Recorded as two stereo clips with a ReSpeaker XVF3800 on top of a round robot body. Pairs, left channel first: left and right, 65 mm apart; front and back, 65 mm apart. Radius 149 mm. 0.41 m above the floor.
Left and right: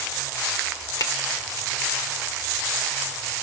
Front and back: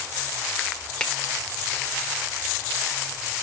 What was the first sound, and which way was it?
A finger snap, 75° left.